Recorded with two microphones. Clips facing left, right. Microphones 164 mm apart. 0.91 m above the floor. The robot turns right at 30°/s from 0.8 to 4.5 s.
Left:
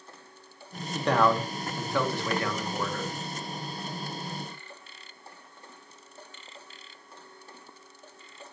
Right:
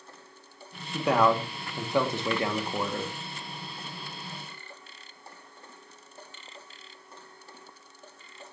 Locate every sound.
0.9 s a man speaking: 5° right (ahead or behind), 1.0 m; by 3.1 s 25° right (ahead or behind), 1.0 m